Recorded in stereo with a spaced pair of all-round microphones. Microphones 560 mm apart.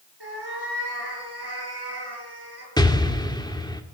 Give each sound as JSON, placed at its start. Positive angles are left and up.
{"t": 0.2, "sound": "a cat meowing", "side_deg": -40, "distance_m": 6.5}
{"t": 2.8, "sound": "an explosion", "side_deg": 5, "distance_m": 1.8}